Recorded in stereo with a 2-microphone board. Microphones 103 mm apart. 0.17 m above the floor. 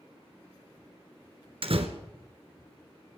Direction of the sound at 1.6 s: 60° right (ahead or behind).